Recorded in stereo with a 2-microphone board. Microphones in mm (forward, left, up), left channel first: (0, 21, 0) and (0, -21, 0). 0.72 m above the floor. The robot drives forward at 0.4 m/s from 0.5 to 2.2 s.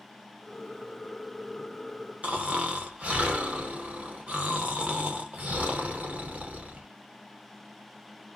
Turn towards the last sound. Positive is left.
turn(degrees=-30)  # may be behind; listen again after turning